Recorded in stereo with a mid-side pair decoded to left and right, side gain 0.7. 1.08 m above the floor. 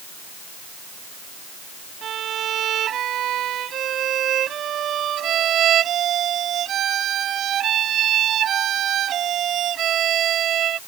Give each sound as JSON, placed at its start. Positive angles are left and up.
{"t": 2.0, "sound": "a violin", "azimuth_deg": -45}